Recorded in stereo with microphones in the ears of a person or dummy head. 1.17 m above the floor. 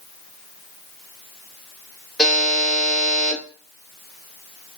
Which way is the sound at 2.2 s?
5° left (ahead or behind).